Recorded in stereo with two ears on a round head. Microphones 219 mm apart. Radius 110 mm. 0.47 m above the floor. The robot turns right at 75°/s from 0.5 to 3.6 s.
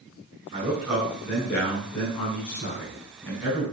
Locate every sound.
0.5 s a man speaking: 35° right, 4 m; by 3.6 s 165° right, 4 m